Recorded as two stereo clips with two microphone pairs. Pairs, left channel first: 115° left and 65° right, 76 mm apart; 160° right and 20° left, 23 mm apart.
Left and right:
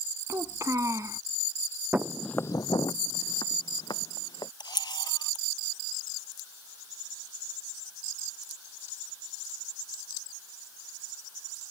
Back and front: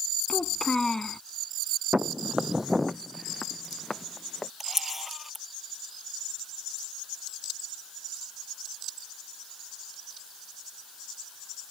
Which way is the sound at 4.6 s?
100° left.